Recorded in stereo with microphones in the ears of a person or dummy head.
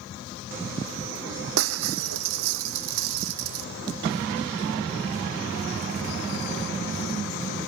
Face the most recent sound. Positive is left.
turn(degrees=-80)